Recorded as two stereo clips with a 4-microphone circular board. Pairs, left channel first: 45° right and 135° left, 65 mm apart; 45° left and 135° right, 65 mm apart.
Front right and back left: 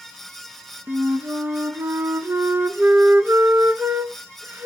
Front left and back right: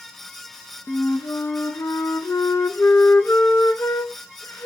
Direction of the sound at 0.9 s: 85° left.